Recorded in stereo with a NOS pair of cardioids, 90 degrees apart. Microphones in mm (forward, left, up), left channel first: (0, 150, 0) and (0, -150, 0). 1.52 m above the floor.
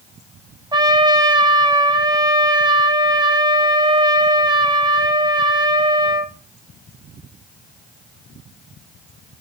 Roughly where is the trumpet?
Ahead.